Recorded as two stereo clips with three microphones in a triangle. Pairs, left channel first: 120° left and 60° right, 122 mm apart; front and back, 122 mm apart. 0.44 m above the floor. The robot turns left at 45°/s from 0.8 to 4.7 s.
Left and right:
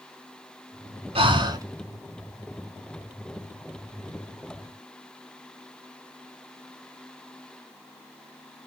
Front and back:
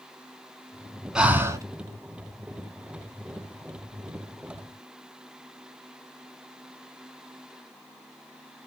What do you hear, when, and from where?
1.1 s breathing: 95° right, 0.8 m; by 1.7 s 120° right, 0.8 m